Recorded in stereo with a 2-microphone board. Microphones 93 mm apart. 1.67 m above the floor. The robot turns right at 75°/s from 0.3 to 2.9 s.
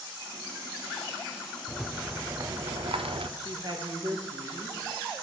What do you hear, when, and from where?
1.7 s a rattle: 165° left, 0.6 m; by 3.3 s 105° right, 0.6 m
3.4 s a woman speaking: 55° right (ahead or behind), 1.6 m